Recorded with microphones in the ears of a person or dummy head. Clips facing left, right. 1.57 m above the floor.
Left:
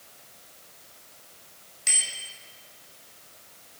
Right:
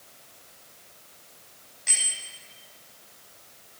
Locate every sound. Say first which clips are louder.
1.9 s a bicycle bell: left 2 dB; 50° left (ahead or behind), 5 m